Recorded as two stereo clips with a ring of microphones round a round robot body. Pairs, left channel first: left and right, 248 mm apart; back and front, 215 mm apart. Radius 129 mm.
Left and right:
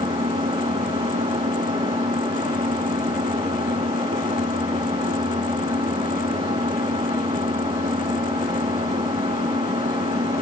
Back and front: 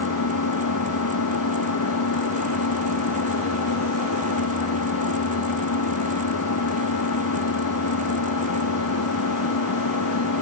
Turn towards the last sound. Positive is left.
turn(degrees=-165)